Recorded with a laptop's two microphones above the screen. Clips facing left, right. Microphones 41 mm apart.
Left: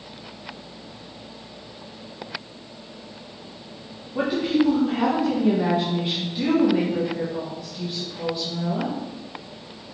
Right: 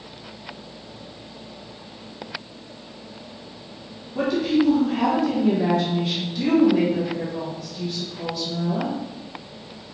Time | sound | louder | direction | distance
4.2 | a woman speaking | right 1 dB | 15° left (ahead or behind) | 0.8 m